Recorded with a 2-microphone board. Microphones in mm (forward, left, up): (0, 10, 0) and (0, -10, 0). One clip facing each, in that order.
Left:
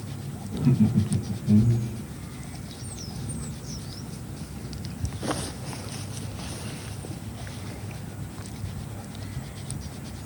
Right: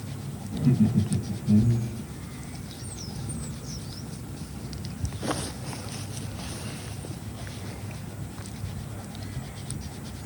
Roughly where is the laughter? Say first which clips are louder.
Left 1 dB; left.